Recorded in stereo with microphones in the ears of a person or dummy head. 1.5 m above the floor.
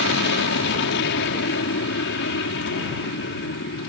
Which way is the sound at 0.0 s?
65° left (ahead or behind).